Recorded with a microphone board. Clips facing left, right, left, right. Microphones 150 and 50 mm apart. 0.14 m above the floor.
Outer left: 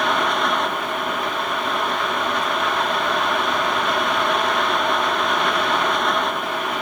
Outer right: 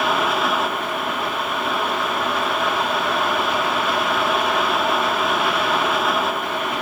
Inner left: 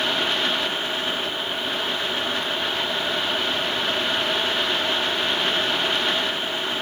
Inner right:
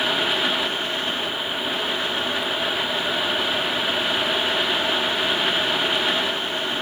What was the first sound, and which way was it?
Only background noise.